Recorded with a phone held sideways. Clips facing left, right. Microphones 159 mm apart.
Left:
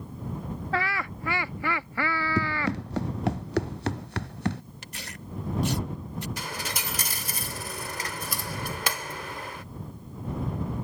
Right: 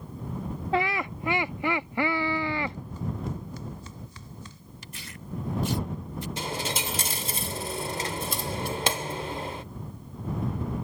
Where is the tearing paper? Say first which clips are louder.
Left 1 dB; 70° left (ahead or behind).